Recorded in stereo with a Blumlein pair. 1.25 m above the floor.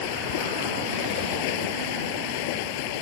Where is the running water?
45° left.